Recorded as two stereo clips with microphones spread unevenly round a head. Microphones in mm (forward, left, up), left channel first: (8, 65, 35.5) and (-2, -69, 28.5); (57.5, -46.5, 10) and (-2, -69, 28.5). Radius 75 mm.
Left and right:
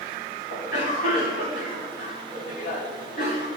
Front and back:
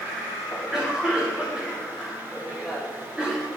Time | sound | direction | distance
0.5 | a cough | 115° left | 4 m